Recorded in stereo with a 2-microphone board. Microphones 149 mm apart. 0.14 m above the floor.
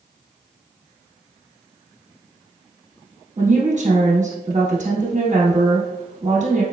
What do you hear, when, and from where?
3.4 s a woman speaking: 55° right (ahead or behind), 1.8 m